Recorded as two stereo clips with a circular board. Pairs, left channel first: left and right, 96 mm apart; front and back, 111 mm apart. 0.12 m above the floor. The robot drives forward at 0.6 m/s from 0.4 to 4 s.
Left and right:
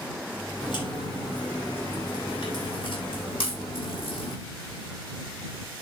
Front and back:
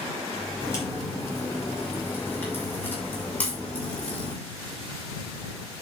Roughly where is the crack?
Ahead left.